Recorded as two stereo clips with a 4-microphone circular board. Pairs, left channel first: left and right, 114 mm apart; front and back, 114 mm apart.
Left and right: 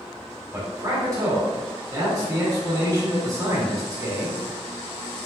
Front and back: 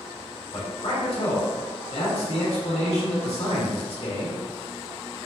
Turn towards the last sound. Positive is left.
turn(degrees=-30)